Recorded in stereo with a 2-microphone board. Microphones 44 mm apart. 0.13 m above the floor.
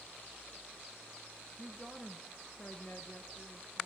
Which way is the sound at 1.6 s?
5° left (ahead or behind).